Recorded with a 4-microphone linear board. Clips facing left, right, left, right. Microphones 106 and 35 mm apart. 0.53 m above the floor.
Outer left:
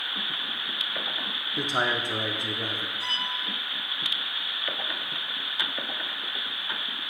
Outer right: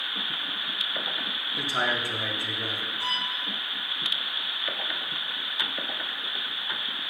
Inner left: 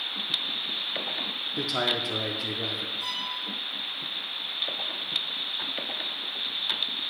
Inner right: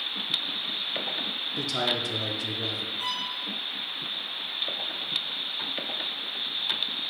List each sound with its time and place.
1.6 s a man speaking: 20° left (ahead or behind), 0.6 m
3.0 s a violin: 70° right (ahead or behind), 2.5 m